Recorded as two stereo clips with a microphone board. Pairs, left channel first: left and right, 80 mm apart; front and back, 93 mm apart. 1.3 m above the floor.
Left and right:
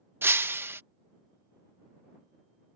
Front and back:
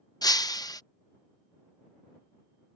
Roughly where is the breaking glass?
Ahead right.